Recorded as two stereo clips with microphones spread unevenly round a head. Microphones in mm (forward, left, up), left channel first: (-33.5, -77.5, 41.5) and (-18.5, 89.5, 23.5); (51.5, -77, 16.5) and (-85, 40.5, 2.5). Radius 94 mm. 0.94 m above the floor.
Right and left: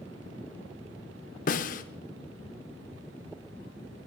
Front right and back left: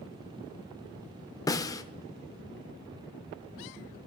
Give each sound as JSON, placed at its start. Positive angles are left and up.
{"t": 1.5, "sound": "a snare drum", "azimuth_deg": -105, "distance_m": 0.7}